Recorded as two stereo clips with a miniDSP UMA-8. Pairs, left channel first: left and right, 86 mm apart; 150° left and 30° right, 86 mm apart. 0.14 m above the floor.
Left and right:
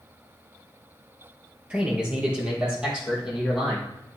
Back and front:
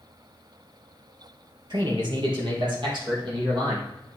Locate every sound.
1.7 s a man speaking: 15° right, 3 m; by 3.9 s 5° right, 5 m